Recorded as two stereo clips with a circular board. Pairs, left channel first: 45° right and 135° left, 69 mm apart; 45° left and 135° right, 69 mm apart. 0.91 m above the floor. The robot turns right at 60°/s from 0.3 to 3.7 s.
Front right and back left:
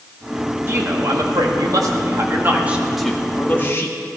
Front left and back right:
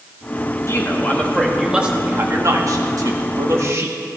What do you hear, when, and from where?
0.7 s a man speaking: 85° left, 1.7 m; by 4.0 s 95° right, 1.7 m